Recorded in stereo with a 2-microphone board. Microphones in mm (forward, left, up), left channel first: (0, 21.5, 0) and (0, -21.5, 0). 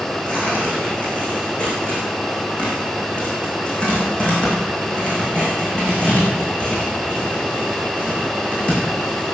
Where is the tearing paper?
25° left (ahead or behind), 7.5 m.